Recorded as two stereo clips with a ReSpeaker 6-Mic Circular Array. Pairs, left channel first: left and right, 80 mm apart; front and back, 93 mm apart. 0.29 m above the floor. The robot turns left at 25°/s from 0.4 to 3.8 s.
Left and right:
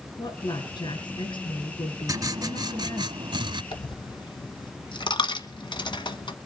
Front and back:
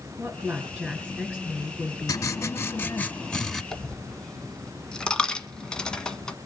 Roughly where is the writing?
Ahead right.